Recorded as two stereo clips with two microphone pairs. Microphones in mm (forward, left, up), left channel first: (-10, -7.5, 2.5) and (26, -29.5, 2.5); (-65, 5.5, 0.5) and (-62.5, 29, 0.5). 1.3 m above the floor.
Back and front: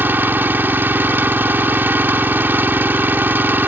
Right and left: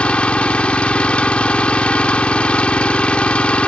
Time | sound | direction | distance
0.0 | an engine running | 65° right | ?